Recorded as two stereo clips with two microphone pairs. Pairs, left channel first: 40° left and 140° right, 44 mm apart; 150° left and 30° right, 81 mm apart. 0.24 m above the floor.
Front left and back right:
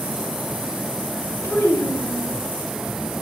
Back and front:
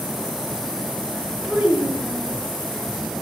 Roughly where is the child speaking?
Ahead left.